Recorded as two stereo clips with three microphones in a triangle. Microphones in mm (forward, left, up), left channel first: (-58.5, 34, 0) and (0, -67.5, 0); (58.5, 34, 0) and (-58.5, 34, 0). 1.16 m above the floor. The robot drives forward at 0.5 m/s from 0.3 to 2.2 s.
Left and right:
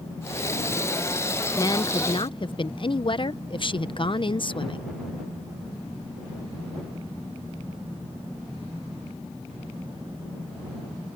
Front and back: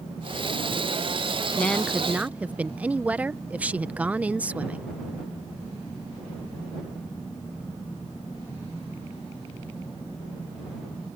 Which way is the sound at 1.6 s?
70° left.